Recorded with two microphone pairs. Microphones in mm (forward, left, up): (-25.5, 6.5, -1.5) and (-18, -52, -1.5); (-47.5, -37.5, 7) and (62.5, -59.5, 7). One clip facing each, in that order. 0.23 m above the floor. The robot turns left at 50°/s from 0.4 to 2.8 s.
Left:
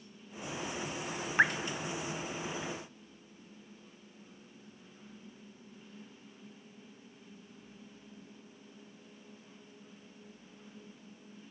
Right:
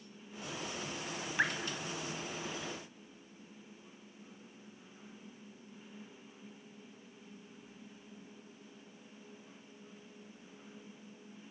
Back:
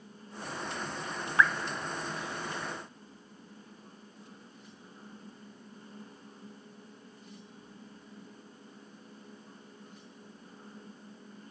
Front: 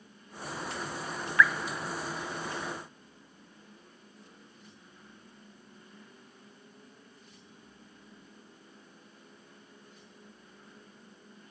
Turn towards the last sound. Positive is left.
turn(degrees=60)